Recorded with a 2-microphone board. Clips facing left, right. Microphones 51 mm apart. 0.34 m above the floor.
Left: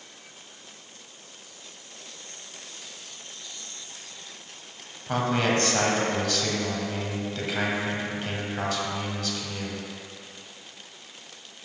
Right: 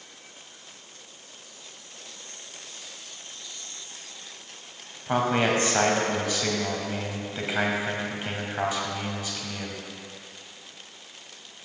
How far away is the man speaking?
About 1.9 m.